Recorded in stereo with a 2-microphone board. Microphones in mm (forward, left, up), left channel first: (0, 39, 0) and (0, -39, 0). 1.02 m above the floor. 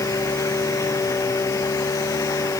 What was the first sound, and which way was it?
Only background noise.